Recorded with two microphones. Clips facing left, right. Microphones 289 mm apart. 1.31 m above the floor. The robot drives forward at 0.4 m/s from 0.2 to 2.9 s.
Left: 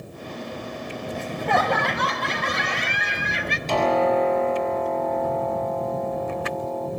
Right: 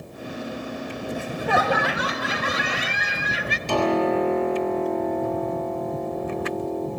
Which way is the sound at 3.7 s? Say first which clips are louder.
Even; 15° right (ahead or behind).